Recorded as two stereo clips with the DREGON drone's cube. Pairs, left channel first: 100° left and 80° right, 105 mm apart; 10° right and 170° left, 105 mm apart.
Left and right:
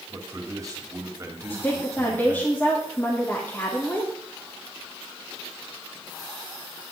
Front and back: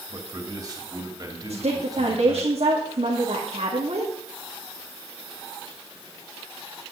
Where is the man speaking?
135° right, 3 m.